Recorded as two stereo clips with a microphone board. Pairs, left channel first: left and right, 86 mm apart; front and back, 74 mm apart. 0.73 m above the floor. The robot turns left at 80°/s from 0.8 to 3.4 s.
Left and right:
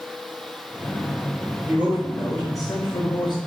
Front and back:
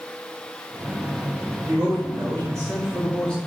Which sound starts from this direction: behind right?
A man speaking, at 1.7 s.